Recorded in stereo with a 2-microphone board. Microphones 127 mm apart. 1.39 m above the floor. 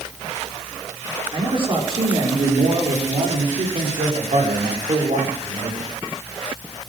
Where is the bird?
No bird in this recording.